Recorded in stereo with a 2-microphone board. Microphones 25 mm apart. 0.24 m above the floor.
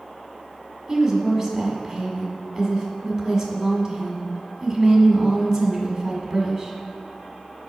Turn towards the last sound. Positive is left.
turn(degrees=-20)  # may be behind; listen again after turning